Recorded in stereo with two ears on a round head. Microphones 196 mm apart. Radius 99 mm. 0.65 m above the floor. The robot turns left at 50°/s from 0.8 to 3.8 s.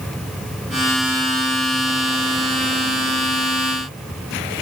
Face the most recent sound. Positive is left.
No sound to turn to.